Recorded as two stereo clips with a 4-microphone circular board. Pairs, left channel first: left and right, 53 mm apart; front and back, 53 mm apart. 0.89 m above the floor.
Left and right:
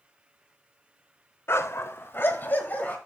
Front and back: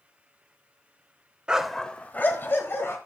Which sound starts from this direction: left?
A dog barking, at 1.5 s.